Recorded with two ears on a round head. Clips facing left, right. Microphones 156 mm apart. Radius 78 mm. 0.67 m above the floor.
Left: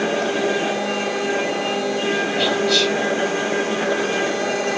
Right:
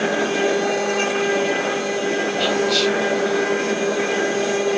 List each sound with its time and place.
2.4 s whispering: 40° left (ahead or behind), 2 m